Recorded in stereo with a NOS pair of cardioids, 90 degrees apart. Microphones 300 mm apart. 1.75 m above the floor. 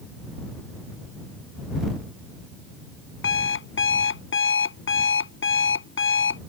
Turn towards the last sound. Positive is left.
turn(degrees=40)